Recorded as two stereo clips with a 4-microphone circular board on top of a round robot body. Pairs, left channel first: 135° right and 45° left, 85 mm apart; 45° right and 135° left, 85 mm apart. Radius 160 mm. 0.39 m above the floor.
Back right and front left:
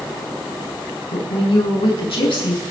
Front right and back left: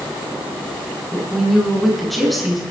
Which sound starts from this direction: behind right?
A woman speaking, at 1.1 s.